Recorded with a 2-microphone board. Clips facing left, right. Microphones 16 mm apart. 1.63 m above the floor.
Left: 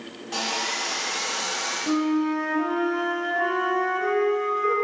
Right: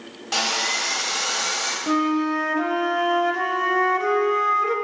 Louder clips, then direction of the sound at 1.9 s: Right 2 dB; 45° right (ahead or behind).